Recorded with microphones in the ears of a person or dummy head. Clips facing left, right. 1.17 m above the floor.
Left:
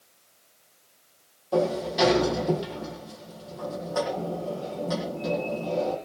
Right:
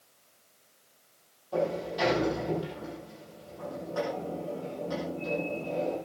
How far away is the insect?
No insect in this recording.